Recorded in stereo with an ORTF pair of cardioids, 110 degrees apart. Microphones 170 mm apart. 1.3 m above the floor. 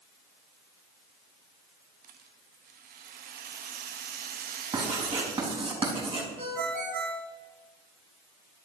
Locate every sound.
2.0 s a rattle: 60° right, 1.3 m
4.7 s writing: 30° right, 4.5 m
6.4 s a ringtone: 60° right, 4.5 m